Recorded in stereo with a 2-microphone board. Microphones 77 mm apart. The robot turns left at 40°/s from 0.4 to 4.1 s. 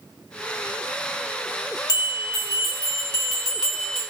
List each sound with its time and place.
1.9 s a bell: 60° left, 1.2 m; by 4.0 s 25° right, 1.2 m